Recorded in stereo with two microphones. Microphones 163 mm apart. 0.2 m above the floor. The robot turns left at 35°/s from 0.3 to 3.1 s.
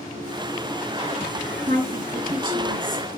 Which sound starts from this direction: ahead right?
A woman speaking, at 1.7 s.